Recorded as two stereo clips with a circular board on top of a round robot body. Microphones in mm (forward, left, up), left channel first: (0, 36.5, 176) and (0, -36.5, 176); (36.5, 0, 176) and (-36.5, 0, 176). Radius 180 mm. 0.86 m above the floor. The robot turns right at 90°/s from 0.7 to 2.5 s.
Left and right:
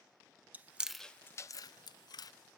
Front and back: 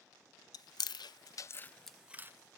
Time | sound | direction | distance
0.5 | chewing | 20° right | 0.5 m